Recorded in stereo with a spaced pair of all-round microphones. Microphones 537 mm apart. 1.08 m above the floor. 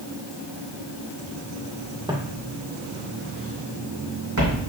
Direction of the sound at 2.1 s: 10° right (ahead or behind).